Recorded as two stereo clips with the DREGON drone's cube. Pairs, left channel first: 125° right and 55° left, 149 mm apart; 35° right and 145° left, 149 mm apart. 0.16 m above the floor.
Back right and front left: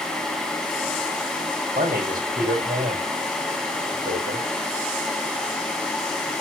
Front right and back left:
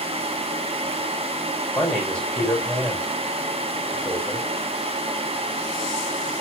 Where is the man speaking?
50° left, 5 m.